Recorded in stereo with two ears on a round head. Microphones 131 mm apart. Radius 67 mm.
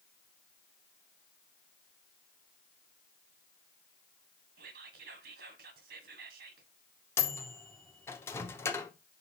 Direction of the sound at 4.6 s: 70° right (ahead or behind).